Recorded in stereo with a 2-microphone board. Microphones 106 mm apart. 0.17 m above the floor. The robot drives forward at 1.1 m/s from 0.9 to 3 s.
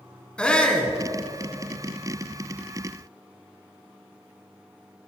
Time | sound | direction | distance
0.4 | a shout | 10° left (ahead or behind) | 1.9 m